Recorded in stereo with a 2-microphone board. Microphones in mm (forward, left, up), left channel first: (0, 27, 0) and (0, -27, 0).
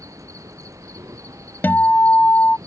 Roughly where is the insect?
Right.